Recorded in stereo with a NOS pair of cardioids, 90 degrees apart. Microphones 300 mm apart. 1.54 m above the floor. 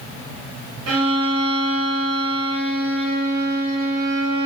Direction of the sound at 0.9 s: 55° right.